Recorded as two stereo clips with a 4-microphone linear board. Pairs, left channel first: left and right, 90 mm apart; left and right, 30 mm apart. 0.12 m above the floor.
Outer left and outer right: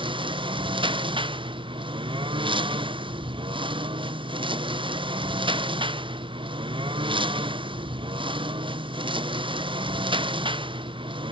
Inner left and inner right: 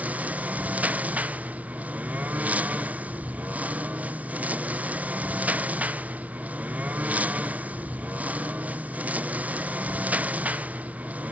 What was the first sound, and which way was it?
A lawn mower, 75° right (ahead or behind).